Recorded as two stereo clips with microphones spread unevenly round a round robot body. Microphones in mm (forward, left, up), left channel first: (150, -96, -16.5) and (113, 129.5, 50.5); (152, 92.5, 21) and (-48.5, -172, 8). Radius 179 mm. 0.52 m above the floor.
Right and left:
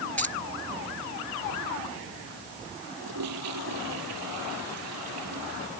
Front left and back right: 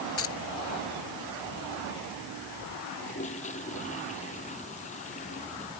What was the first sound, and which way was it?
Keys jangling, 5° left.